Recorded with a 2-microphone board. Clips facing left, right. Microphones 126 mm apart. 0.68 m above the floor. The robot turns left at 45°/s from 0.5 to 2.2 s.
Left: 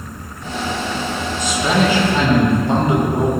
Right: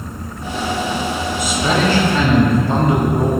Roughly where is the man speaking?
Behind.